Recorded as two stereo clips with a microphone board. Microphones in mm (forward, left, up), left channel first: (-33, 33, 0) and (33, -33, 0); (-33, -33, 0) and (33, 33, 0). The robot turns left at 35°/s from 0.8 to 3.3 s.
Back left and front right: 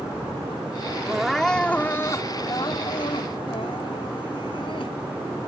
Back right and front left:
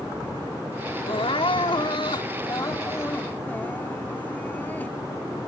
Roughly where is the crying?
Behind right.